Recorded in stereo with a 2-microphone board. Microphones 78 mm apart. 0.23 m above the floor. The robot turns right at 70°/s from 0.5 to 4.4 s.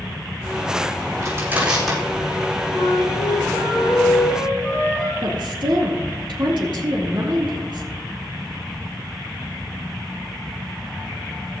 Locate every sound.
1.2 s crushing: 45° right (ahead or behind), 6.5 m; by 2.0 s 10° left (ahead or behind), 6.5 m
2.7 s a flute: 45° left, 5.5 m; by 5.1 s 160° left, 5.5 m
5.2 s a woman speaking: 75° right (ahead or behind), 3.5 m